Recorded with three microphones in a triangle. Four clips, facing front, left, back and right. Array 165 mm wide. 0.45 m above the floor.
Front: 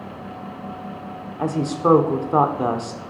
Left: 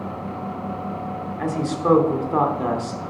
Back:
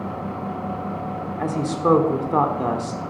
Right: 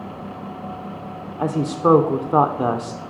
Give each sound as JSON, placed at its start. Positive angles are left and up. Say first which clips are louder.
{"t": 1.4, "sound": "a woman speaking", "louder": "right 4 dB, front 2 dB", "azimuth_deg": -65, "distance_m": 1.4}